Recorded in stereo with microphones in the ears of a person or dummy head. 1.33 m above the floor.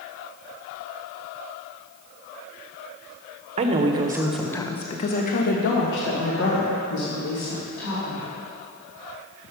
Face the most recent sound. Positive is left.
turn(degrees=85)